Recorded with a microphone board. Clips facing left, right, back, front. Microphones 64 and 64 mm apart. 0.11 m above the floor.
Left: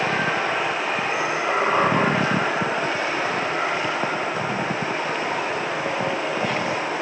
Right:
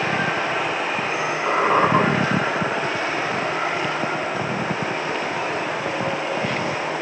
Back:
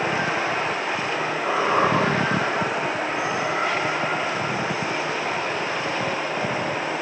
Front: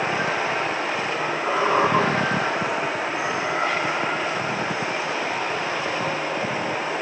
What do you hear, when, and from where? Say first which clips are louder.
1.5 s a squeak: right 3 dB, front 1 dB; 90° right, 8 m